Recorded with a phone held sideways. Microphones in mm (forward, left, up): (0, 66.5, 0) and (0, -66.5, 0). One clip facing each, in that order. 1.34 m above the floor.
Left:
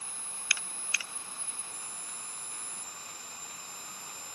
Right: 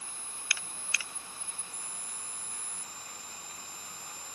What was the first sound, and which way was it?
Only background noise.